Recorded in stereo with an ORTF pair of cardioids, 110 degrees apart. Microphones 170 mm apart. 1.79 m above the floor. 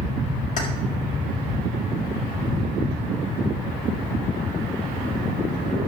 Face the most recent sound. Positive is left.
turn(degrees=50)